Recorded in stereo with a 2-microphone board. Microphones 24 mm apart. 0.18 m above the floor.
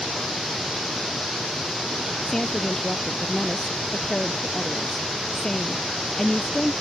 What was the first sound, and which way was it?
A woman speaking, 15° left (ahead or behind).